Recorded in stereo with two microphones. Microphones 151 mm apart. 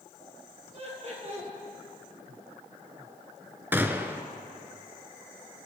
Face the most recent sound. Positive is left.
turn(degrees=-15)  # may be behind; listen again after turning